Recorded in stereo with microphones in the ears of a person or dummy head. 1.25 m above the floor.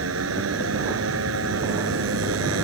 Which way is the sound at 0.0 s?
85° right.